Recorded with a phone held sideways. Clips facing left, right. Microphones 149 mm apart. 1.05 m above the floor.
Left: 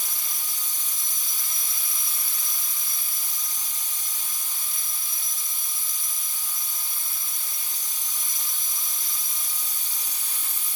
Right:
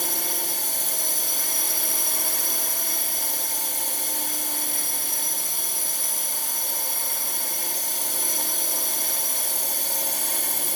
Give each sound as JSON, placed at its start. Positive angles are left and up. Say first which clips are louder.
{"t": 0.0, "sound": "a drone", "louder": "right 12 dB", "side_deg": -65}